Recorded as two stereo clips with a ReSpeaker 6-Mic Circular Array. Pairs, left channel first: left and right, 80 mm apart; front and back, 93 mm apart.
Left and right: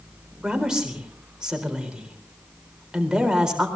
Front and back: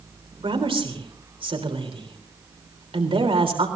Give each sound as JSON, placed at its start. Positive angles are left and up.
{"t": 0.4, "sound": "a woman speaking", "azimuth_deg": -170, "distance_m": 3.5}